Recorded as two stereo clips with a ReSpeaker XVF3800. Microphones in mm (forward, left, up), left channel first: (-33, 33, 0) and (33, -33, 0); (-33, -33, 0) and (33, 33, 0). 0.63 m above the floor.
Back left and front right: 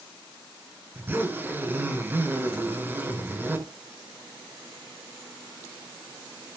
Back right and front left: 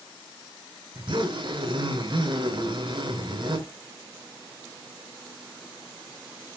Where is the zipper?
25° left, 4.5 m.